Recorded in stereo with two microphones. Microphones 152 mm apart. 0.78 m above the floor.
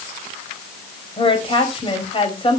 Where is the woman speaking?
35° left (ahead or behind), 4.5 m.